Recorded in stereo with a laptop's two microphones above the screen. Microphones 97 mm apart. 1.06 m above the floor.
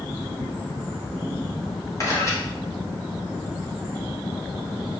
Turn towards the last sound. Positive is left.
turn(degrees=35)  # may be behind; listen again after turning